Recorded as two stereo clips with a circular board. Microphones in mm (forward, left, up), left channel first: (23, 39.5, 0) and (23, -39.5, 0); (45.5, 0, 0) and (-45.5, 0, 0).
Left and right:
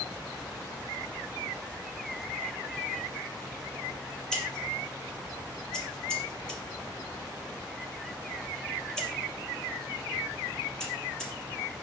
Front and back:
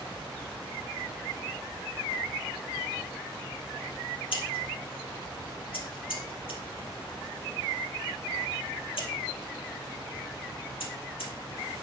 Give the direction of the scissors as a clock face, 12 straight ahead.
12 o'clock.